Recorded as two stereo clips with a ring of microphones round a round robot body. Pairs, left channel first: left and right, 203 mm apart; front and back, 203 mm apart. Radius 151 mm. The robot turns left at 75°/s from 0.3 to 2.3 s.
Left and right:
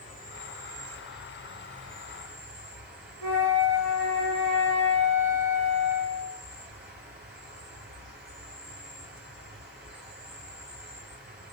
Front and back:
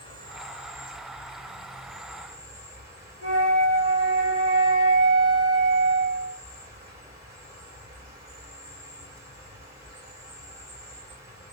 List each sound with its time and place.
0.0 s an insect: 60° left, 3 m; by 11.5 s 90° right, 3 m
3.2 s a flute: 110° right, 2 m